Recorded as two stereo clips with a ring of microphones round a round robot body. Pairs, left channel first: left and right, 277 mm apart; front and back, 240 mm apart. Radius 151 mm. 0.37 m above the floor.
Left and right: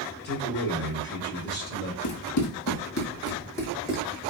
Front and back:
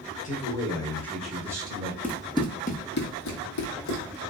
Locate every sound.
0.2 s a man speaking: 50° left, 1.3 m; by 1.9 s 130° left, 1.2 m
2.0 s running footsteps: 85° left, 1.1 m; by 4.2 s 10° right, 1.2 m